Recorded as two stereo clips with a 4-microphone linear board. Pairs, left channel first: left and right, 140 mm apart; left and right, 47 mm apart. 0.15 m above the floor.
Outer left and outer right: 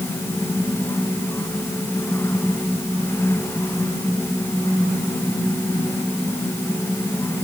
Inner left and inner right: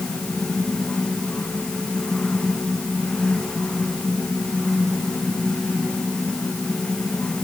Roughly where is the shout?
I don't hear a shout.